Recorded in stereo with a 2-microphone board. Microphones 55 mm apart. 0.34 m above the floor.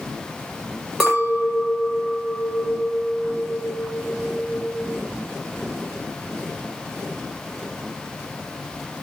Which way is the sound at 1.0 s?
5° right (ahead or behind).